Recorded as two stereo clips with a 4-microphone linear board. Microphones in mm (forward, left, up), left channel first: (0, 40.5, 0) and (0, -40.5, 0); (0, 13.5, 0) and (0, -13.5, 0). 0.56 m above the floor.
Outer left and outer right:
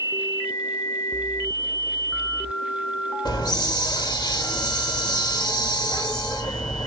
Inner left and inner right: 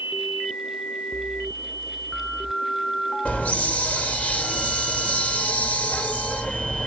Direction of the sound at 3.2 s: 65° left (ahead or behind).